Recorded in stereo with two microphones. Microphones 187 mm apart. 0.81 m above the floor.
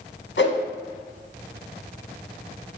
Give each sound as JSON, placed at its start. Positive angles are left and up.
{"t": 0.4, "sound": "a whoosh", "side_deg": 85, "distance_m": 0.8}